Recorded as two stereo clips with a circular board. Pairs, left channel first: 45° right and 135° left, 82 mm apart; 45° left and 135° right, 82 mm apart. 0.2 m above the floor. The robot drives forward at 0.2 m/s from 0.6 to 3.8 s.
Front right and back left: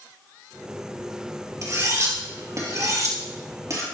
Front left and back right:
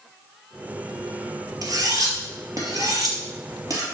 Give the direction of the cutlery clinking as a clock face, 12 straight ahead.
6 o'clock.